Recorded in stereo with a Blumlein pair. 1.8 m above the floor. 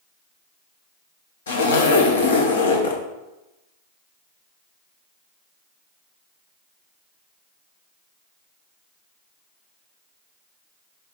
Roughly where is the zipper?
Ahead left.